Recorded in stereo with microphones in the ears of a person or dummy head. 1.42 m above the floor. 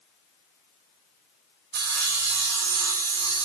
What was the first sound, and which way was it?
Sawing, 80° right.